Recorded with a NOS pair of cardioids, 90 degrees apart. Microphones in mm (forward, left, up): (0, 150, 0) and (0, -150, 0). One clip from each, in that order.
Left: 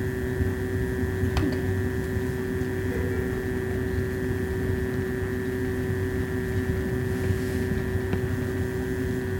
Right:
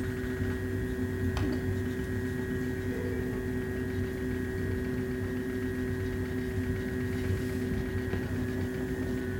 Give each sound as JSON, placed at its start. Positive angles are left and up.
{"t": 0.0, "sound": "a fan", "azimuth_deg": 40, "distance_m": 1.0}